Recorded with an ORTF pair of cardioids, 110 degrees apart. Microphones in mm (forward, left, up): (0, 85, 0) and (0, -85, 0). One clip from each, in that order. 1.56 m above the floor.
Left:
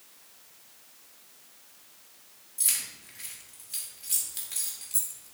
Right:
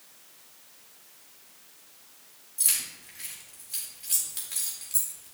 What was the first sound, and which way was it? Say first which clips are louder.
Keys jangling: right 1 dB; straight ahead.